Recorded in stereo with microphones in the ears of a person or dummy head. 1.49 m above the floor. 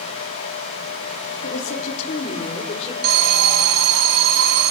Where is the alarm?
60° right (ahead or behind), 1.6 m.